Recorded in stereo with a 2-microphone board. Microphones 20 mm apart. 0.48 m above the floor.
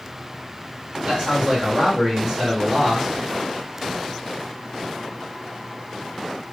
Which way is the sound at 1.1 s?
45° right (ahead or behind).